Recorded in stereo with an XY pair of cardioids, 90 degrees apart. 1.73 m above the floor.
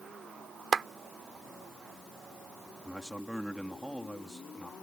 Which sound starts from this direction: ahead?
A man speaking, at 2.9 s.